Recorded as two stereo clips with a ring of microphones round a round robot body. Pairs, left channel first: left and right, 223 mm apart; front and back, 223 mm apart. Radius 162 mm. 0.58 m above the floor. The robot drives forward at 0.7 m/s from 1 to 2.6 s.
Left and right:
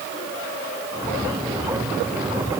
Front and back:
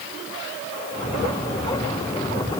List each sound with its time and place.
Only background noise.